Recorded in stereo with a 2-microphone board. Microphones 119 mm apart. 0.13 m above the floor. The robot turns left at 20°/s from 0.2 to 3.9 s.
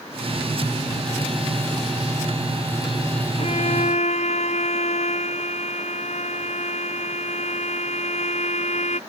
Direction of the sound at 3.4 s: 60° left (ahead or behind).